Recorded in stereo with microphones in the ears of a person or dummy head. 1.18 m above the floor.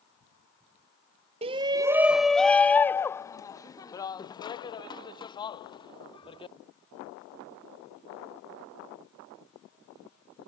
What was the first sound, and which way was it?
A shout, 30° right (ahead or behind).